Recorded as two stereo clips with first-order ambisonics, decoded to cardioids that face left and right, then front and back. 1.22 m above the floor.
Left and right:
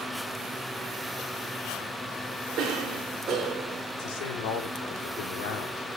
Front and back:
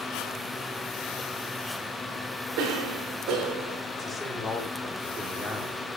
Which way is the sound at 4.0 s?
85° left.